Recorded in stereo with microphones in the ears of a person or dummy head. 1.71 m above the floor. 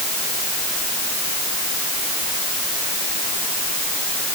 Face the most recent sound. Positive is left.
No sound to turn to.